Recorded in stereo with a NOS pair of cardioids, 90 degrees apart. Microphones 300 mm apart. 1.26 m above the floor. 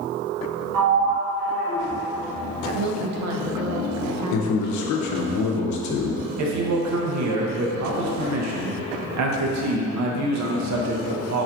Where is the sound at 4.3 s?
70° left, 0.7 m.